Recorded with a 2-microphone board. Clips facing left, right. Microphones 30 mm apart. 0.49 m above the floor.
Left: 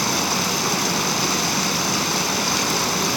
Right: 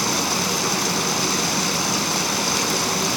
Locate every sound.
0.0 s running water: 5° left (ahead or behind), 1.3 m